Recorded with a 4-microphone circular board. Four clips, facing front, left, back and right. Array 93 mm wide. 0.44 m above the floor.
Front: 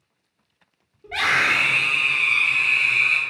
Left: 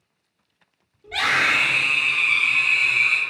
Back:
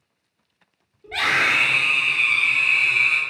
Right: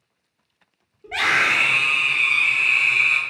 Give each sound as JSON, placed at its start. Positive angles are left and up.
{"t": 1.0, "sound": "a scream", "azimuth_deg": -70, "distance_m": 0.9}